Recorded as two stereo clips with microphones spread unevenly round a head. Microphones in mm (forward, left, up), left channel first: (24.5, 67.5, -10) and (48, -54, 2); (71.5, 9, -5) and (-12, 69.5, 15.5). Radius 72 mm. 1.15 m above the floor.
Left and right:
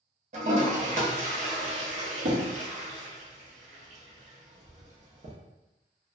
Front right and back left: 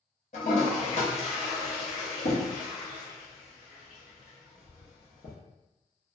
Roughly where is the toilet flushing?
Right.